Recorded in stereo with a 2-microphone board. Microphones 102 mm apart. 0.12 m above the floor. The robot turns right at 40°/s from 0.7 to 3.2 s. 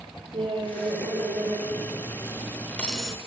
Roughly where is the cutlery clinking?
Behind left.